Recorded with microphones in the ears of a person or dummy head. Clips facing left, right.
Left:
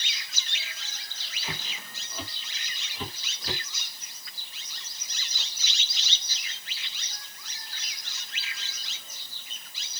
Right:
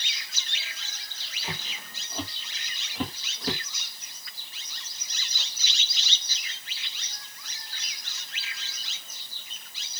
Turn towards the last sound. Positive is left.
turn(degrees=-50)  # may be behind; listen again after turning